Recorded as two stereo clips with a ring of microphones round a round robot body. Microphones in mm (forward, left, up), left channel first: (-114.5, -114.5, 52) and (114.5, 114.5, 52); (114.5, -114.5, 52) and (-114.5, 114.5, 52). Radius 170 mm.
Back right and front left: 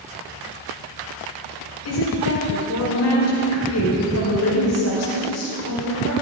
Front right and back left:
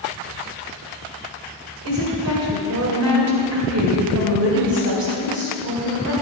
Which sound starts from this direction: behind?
A woman speaking, at 1.9 s.